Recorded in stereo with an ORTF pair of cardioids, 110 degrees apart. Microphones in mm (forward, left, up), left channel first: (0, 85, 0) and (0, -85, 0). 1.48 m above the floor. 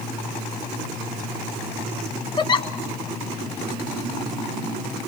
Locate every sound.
2.4 s a giggle: 30° left, 1.1 m